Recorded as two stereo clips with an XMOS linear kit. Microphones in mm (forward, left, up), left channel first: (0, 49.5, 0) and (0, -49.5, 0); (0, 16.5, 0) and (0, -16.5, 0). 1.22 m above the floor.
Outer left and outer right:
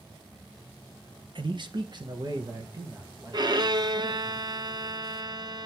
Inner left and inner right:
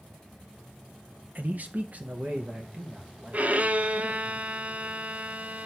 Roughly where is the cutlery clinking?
I don't hear cutlery clinking.